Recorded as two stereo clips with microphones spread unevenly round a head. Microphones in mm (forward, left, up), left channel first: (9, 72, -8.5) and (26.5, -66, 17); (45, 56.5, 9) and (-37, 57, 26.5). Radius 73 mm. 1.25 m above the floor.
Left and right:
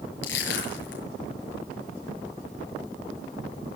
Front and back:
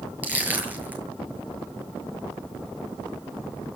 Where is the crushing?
110° left, 8.5 m.